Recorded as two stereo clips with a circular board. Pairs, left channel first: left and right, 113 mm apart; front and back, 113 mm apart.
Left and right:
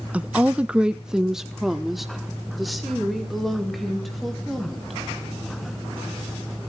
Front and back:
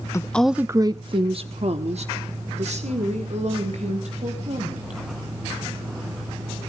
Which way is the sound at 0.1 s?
25° right.